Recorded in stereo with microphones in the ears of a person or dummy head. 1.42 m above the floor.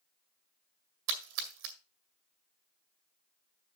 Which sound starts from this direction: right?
A splash, at 1.1 s.